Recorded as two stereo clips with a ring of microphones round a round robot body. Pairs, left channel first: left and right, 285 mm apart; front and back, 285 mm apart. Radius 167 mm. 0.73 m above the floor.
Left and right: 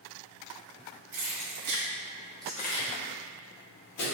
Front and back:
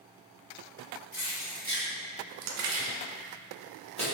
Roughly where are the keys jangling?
Right.